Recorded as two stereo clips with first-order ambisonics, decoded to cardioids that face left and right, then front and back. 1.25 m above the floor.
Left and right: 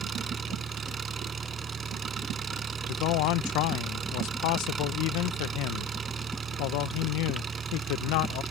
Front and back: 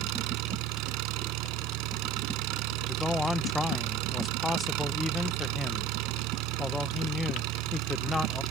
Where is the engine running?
160° right.